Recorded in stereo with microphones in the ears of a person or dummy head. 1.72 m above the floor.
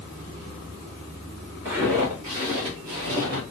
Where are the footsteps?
20° right (ahead or behind), 1.9 m; by 3.4 s 30° right (ahead or behind), 2.5 m.